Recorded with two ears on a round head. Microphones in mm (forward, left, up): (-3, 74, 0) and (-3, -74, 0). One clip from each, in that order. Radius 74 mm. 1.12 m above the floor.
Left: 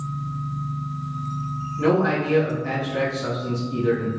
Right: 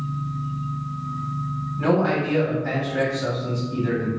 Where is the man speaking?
Centre (ahead or behind), 1.9 m.